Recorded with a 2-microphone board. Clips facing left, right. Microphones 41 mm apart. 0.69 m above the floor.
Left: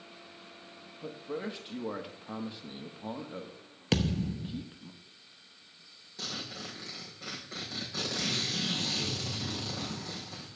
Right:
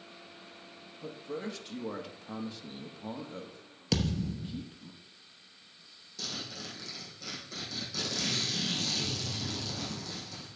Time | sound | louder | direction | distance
1.0 | a man speaking | left 1 dB | 15° left (ahead or behind) | 0.9 m
3.9 | a thud | left 2 dB | 35° left (ahead or behind) | 0.8 m
6.2 | a zipper | left 1 dB | 25° left (ahead or behind) | 4.5 m